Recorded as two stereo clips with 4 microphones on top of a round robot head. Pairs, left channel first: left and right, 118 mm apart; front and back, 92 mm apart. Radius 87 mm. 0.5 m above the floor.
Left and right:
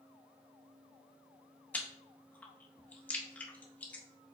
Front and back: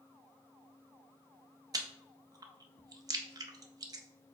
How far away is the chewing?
About 0.6 m.